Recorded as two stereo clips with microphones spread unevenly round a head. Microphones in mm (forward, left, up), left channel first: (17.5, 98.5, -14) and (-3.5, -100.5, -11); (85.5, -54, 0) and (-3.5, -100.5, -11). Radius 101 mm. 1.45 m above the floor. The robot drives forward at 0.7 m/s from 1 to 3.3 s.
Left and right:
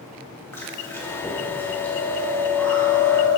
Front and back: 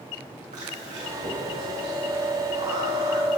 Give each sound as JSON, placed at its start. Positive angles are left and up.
{"t": 0.5, "sound": "chewing", "azimuth_deg": 165, "distance_m": 2.5}